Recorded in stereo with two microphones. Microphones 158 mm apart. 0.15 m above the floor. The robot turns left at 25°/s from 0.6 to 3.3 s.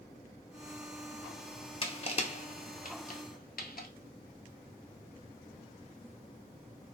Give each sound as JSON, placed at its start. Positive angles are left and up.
{"t": 1.8, "sound": "crushing", "side_deg": 35, "distance_m": 0.5}